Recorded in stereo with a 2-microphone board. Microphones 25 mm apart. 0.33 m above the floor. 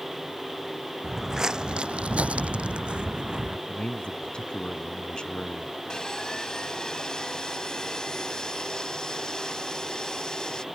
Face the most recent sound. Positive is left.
turn(degrees=30)  # may be behind; listen again after turning